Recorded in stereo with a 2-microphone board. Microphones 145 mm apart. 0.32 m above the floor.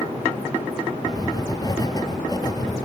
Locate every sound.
1.1 s writing: 25° left (ahead or behind), 1.0 m